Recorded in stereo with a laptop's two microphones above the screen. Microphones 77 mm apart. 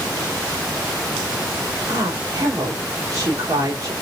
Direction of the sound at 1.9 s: 65° right (ahead or behind).